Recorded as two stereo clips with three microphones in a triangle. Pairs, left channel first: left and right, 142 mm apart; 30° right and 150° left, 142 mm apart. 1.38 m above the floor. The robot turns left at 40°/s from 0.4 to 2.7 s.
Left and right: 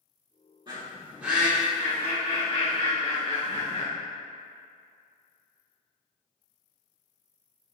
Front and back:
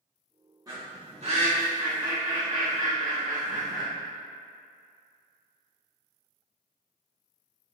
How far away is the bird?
About 2 m.